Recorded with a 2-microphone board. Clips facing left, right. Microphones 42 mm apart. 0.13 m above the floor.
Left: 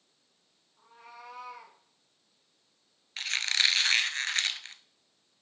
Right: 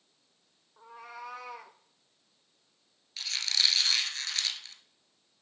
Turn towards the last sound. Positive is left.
turn(degrees=40)  # may be behind; listen again after turning